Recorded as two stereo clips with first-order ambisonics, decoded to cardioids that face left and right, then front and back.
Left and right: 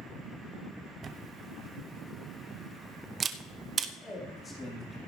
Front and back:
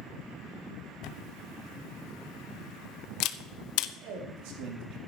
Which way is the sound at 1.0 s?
25° right.